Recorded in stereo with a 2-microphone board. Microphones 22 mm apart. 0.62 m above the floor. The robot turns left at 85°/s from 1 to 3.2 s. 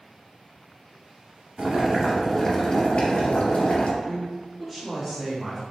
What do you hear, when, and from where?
1.6 s boiling: 125° right, 1.0 m; by 3.9 s 95° left, 1.0 m
4.0 s a woman speaking: centre (ahead or behind), 1.1 m